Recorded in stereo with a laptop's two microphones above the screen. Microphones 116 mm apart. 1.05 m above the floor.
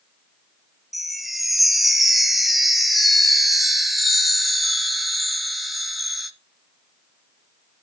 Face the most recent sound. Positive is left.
turn(degrees=0)  # may be behind; listen again after turning